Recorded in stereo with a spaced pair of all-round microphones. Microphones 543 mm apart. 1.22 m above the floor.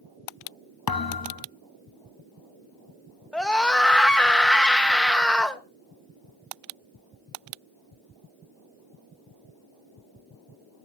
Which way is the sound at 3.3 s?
Centre (ahead or behind).